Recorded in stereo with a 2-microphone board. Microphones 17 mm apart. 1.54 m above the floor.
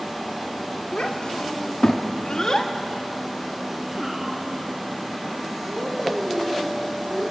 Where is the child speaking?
75° left (ahead or behind), 2.5 m; by 7.2 s 45° right (ahead or behind), 5.5 m.